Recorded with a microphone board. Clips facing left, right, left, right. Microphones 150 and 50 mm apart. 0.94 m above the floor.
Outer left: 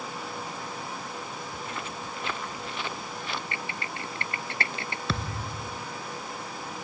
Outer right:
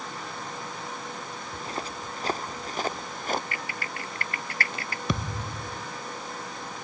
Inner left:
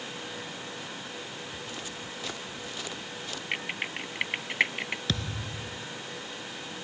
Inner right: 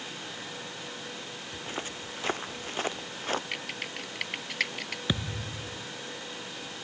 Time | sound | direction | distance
1.5 | footsteps | 35° right (ahead or behind) | ?
3.5 | typing on a keyboard | 25° left (ahead or behind) | ?
5.1 | a thud | 15° right (ahead or behind) | ?